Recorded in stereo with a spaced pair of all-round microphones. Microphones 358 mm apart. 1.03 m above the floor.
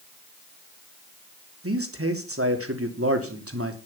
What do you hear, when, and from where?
1.6 s a man speaking: 40° right (ahead or behind), 3 m